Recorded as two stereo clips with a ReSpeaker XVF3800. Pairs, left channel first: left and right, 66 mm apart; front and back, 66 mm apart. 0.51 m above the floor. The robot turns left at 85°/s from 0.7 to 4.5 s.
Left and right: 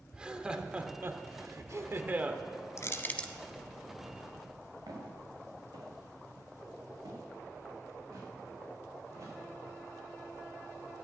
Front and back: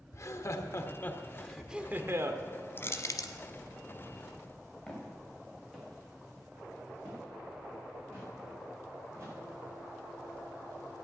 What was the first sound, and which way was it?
Laughter, 15° right.